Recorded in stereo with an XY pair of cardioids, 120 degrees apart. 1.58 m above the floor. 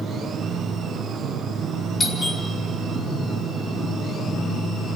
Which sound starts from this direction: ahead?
A doorbell, at 2.0 s.